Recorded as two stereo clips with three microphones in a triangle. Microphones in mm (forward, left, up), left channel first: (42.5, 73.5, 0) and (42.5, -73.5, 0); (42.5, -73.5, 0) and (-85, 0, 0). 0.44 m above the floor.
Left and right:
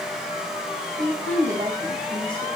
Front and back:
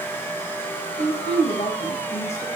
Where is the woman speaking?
75° right, 2 m.